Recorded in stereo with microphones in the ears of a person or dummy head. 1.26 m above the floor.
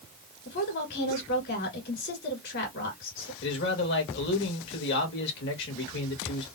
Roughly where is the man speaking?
Left.